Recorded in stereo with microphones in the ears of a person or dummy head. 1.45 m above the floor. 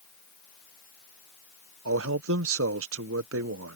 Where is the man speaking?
75° right (ahead or behind).